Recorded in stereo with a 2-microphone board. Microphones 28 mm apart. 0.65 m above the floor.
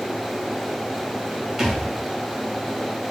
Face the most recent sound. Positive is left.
turn(degrees=-10)  # may be behind; listen again after turning